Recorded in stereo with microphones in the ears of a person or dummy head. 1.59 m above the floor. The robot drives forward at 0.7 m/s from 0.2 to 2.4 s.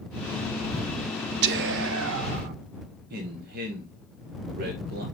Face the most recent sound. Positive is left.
turn(degrees=-55)  # may be behind; listen again after turning